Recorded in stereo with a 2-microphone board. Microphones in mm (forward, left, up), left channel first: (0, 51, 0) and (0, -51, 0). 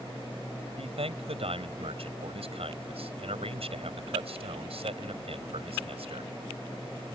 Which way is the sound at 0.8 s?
75° right (ahead or behind).